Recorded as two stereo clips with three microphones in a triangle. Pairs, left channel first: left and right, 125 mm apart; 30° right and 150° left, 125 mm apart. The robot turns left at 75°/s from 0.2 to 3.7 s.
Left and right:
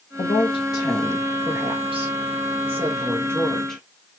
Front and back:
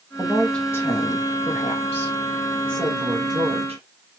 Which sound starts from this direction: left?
A woman speaking, at 0.2 s.